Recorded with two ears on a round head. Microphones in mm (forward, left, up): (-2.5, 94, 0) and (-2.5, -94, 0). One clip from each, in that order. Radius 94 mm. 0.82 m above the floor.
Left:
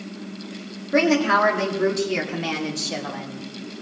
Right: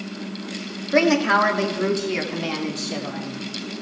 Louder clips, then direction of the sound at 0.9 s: Right 1 dB; 20° right (ahead or behind).